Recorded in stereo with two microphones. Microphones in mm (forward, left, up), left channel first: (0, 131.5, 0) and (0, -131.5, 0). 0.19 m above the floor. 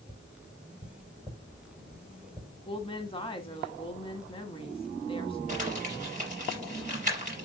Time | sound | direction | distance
0.1 | tapping | 10° right (ahead or behind) | 6.5 m
2.7 | a woman speaking | 20° left (ahead or behind) | 1.4 m
5.5 | crumpling | 30° right (ahead or behind) | 4.5 m